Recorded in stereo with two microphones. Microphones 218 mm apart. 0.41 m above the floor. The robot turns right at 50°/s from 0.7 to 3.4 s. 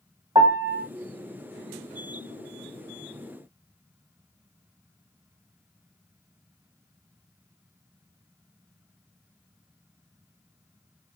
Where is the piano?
20° right (ahead or behind), 1.3 m; by 0.8 s 25° right (ahead or behind), 1.3 m.